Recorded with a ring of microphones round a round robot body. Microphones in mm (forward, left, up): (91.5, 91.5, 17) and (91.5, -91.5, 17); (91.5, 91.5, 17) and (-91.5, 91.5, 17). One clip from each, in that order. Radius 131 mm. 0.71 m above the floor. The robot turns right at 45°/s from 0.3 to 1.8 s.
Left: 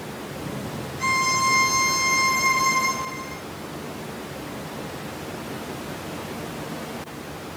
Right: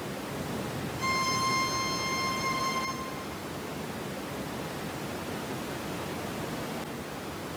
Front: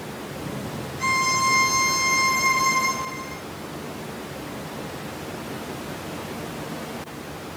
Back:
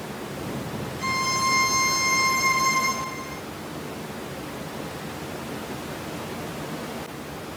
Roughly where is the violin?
Ahead left.